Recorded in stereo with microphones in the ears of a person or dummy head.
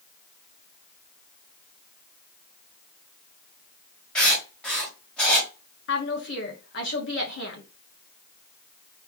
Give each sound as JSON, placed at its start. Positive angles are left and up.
{"t": 4.2, "sound": "writing", "side_deg": 0, "distance_m": 1.6}
{"t": 5.9, "sound": "a woman speaking", "side_deg": 55, "distance_m": 1.6}